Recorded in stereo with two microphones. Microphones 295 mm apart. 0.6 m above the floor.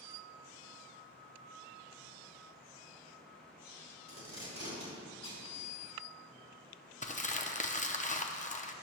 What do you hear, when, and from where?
4.1 s tape being pulled: 70° right (ahead or behind), 3.5 m
7.0 s crumpling: 25° left (ahead or behind), 0.6 m